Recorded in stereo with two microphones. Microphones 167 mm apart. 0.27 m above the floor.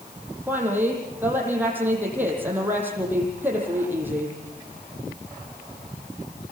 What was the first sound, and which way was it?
A woman speaking, 10° right (ahead or behind).